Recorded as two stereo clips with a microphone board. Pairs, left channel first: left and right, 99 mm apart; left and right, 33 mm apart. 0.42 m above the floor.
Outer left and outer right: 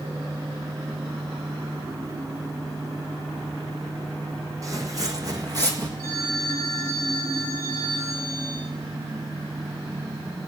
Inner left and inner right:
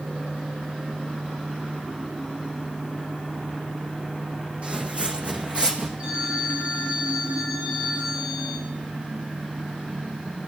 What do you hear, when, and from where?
4.6 s footsteps: 35° right (ahead or behind), 1.5 m; by 5.9 s 40° right (ahead or behind), 2 m
6.0 s a phone ringing: 35° right (ahead or behind), 9.5 m